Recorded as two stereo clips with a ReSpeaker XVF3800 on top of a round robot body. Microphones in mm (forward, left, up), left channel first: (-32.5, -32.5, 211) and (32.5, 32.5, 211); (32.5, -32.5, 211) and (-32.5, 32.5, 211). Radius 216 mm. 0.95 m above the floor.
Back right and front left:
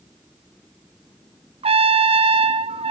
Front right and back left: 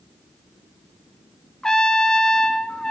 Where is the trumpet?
40° left, 0.7 m.